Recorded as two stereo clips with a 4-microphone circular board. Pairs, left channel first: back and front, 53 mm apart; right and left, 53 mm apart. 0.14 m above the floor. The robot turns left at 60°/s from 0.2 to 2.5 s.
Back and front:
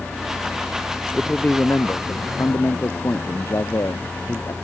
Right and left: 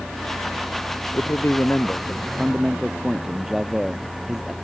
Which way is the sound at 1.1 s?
105° right.